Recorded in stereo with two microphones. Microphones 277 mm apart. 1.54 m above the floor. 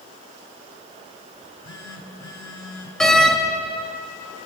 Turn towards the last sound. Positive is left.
turn(degrees=0)  # may be behind; listen again after turning